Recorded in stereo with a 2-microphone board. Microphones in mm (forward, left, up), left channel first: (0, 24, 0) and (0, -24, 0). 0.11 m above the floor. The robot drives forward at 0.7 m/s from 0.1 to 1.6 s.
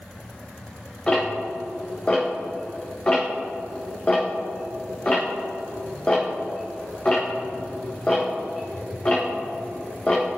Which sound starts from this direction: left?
Ticking, at 1.1 s.